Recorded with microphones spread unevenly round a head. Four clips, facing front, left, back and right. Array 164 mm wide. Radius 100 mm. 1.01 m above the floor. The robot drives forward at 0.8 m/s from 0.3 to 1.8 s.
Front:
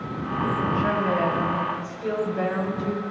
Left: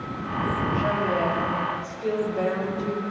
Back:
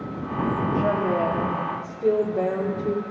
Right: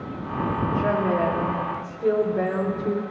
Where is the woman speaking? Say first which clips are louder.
Right 3 dB, back 2 dB; 160° right, 2 m; by 3.0 s 165° right, 3 m.